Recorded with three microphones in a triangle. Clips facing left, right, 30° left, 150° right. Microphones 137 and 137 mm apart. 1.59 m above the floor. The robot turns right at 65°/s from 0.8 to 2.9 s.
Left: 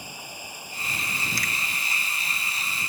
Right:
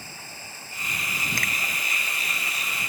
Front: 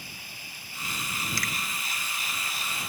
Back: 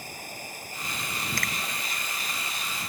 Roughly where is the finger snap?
Behind right.